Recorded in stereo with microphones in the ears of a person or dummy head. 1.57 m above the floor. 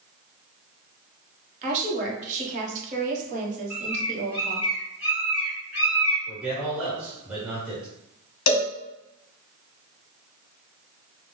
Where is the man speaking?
10° right (ahead or behind), 1.4 m.